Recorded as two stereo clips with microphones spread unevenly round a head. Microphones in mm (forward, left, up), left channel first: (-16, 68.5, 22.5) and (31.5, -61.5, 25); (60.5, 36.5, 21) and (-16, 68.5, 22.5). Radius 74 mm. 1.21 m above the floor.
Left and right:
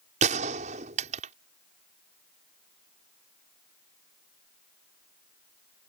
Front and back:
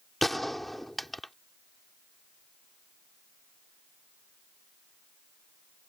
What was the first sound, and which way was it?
A gunshot, 110° right.